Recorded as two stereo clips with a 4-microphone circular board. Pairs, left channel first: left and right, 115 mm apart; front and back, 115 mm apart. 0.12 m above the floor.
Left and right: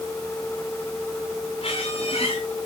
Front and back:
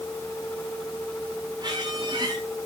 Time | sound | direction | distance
1.6 | a squeak | 130° left | 5 m